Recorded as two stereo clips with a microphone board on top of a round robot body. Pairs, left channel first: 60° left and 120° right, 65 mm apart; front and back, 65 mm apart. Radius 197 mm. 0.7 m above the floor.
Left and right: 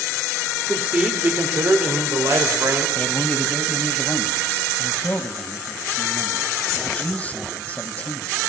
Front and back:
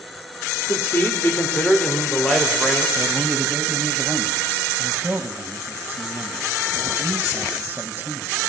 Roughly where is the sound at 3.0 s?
Behind left.